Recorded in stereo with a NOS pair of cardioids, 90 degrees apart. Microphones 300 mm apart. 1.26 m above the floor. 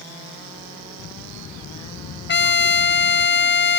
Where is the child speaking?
60° left.